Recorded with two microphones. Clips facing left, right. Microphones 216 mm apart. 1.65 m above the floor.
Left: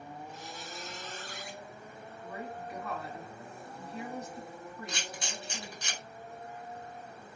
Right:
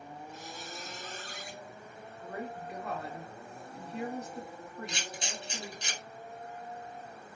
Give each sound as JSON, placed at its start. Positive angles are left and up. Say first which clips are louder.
{"t": 0.3, "sound": "a squeak", "louder": "even", "side_deg": -45, "distance_m": 0.7}
{"t": 2.2, "sound": "a woman speaking", "louder": "right 2 dB", "side_deg": -65, "distance_m": 0.7}
{"t": 4.9, "sound": "a camera shutter", "louder": "even", "side_deg": -25, "distance_m": 1.6}